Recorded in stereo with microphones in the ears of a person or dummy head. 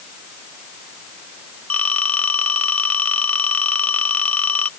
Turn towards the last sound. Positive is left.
turn(degrees=10)  # may be behind; listen again after turning